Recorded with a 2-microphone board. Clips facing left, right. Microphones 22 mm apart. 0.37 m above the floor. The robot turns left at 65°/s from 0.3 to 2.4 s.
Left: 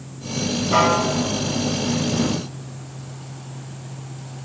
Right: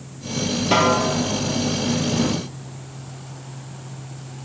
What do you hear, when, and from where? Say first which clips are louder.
0.7 s a snare drum: even; 50° right (ahead or behind), 3 m; by 1.0 s 30° right (ahead or behind), 3 m